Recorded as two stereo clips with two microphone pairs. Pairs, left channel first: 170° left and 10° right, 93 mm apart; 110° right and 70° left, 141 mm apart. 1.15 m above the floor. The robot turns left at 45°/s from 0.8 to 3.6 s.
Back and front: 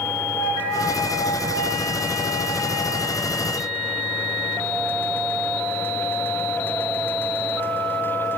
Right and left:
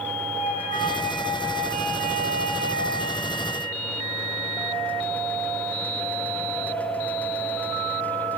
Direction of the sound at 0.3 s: 155° right.